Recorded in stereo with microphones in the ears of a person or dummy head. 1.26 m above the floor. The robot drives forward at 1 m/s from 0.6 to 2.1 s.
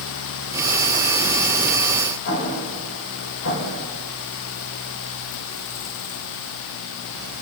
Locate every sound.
2.2 s an explosion: 65° left (ahead or behind), 5.5 m